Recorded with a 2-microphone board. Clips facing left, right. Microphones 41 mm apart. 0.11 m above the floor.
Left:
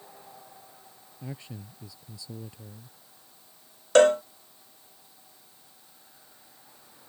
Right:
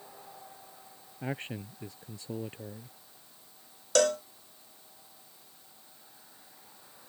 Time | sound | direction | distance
1.2 | a man speaking | 45° right (ahead or behind) | ?
4.0 | a cowbell | 30° left (ahead or behind) | ?